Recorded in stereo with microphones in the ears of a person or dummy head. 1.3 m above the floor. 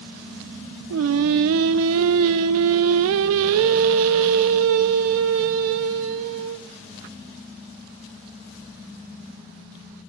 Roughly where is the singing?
Right.